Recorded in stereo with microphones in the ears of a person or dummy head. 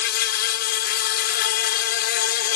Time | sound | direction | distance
0.0 | an insect | 60° left (ahead or behind) | ?